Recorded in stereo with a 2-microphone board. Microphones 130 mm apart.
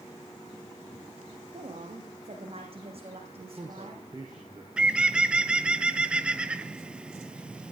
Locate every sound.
1.5 s a woman speaking: 50° right (ahead or behind), 7 m
3.4 s a man speaking: 35° right (ahead or behind), 5 m
4.8 s a bird: 5° right (ahead or behind), 0.8 m